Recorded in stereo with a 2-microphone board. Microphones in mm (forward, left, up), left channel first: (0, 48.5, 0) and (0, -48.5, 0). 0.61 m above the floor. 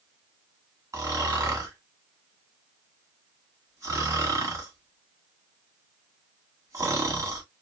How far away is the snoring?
About 1.4 m.